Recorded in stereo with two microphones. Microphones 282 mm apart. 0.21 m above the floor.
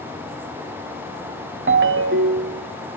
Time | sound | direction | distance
1.7 | a ringtone | 45° right (ahead or behind) | 0.6 m